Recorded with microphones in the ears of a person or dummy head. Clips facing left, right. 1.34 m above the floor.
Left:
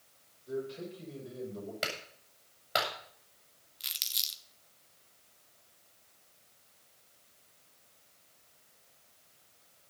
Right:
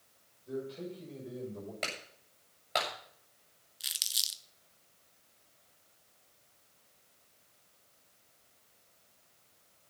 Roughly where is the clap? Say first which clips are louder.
Left 2 dB; centre.